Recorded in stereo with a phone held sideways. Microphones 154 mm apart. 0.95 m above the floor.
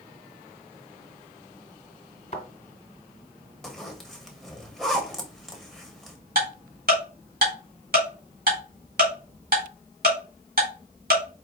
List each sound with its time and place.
2.3 s a thud: 45° left (ahead or behind), 1.6 m
3.6 s a zipper: centre (ahead or behind), 1.0 m
6.3 s ticking: 70° right (ahead or behind), 2.0 m